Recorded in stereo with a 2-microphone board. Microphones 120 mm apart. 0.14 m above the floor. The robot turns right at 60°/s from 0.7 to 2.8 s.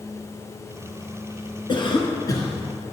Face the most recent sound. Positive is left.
turn(degrees=165)